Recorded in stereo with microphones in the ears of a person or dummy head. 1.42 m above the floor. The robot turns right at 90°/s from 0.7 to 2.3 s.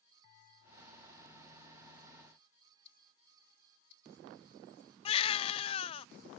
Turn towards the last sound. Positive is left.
turn(degrees=30)  # may be behind; listen again after turning